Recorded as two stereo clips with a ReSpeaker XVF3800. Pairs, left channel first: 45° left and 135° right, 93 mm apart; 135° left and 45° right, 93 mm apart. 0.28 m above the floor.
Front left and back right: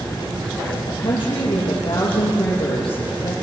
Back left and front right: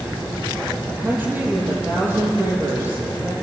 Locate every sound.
0.9 s a woman speaking: 25° left, 9 m